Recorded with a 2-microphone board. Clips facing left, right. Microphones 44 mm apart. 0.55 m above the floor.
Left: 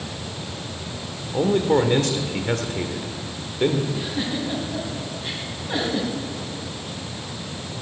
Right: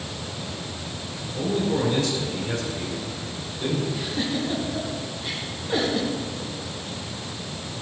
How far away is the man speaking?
About 1.8 m.